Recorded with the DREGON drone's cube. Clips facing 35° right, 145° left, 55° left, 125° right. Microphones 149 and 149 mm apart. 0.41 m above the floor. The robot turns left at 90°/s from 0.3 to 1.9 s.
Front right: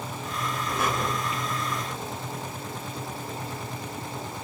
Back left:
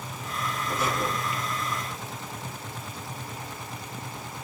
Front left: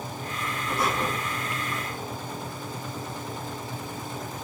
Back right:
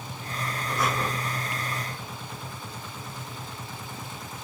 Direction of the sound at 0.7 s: 5° left.